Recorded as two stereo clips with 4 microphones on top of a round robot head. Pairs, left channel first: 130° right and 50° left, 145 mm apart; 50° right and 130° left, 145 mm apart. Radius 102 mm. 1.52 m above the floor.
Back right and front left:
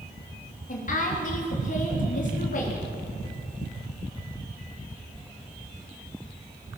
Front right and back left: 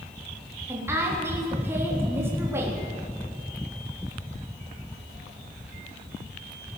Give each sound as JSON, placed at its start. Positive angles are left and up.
{"t": 0.7, "sound": "a woman speaking", "azimuth_deg": -160, "distance_m": 3.5}